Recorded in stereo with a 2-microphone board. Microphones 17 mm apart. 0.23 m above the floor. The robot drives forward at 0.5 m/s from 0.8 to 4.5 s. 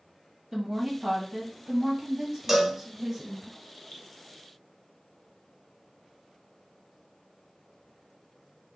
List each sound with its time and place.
0.5 s a woman speaking: 10° right (ahead or behind), 2.0 m; by 3.5 s 15° right (ahead or behind), 1.2 m
2.5 s a cowbell: 10° right (ahead or behind), 1.1 m
3.9 s dripping: 65° left (ahead or behind), 1.5 m